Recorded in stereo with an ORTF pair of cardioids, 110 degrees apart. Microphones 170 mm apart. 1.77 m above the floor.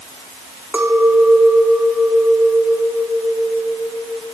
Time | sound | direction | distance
0.7 | a clink | 10° right | 4.5 m